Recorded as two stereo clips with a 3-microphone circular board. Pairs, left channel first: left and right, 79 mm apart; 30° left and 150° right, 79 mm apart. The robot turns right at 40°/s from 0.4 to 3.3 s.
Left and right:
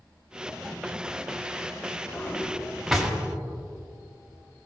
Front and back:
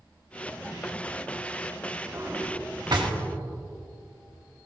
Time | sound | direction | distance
2.1 | a drawer | 150° left | 1.4 m